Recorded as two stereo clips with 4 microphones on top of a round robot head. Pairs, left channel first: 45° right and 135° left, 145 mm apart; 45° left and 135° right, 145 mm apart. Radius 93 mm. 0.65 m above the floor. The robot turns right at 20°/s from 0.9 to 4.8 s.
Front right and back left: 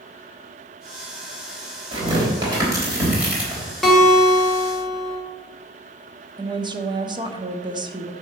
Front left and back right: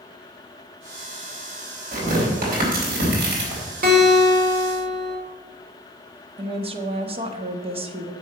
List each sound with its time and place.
1.9 s tearing paper: 170° right, 4 m; by 3.6 s 135° right, 4 m
3.8 s a guitar: 130° right, 2.5 m; by 5.2 s 110° right, 2.5 m
6.4 s a woman speaking: 175° right, 1.1 m